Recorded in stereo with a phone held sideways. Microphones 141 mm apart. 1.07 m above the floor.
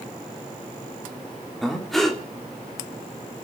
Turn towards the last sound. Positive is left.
turn(degrees=0)  # may be behind; listen again after turning